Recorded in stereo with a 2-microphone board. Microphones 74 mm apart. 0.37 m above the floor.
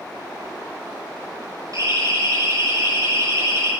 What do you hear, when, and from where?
1.7 s a siren: 45° right (ahead or behind), 9.5 m; by 3.7 s 40° right (ahead or behind), 9 m